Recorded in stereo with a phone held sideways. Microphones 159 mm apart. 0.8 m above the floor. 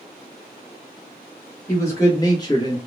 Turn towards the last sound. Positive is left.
turn(degrees=25)  # may be behind; listen again after turning